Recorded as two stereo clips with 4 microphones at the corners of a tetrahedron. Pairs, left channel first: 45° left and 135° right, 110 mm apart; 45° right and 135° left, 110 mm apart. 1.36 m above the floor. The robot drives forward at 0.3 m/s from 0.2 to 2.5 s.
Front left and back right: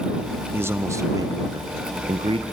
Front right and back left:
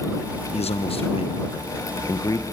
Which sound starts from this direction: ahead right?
A man speaking, at 0.5 s.